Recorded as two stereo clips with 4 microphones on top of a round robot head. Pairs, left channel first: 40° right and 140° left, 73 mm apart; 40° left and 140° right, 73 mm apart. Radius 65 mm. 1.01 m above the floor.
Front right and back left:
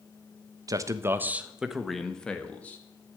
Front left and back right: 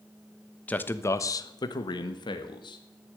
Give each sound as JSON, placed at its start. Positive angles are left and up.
{"t": 0.7, "sound": "a man speaking", "azimuth_deg": 110, "distance_m": 1.1}